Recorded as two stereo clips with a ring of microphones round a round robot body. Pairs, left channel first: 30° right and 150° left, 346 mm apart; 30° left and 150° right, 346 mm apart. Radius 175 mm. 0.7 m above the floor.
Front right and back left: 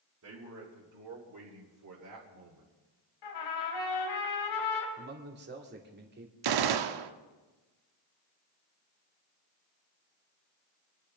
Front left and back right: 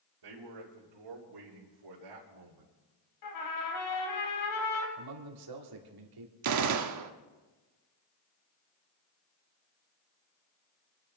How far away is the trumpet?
About 3 m.